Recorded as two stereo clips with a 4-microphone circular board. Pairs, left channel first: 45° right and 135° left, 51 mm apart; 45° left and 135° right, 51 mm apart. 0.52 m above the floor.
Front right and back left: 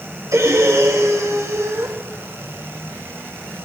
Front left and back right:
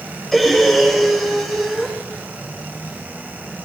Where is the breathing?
130° left, 3 m.